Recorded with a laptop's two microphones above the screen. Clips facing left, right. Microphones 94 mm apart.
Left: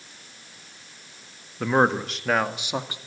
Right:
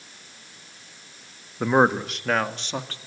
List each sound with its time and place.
1.6 s a man speaking: 15° right (ahead or behind), 1.5 m; by 3.0 s 15° left (ahead or behind), 2 m